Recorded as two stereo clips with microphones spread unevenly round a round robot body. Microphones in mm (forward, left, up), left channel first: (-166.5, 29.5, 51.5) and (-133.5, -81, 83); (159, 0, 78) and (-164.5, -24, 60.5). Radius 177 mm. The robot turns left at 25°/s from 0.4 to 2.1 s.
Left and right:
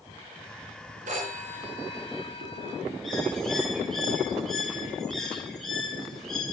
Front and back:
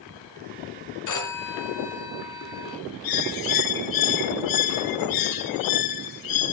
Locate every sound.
1.1 s a phone ringing: 30° right, 3.5 m; by 2.8 s 55° right, 3.5 m
3.0 s a bird: 25° left, 1.3 m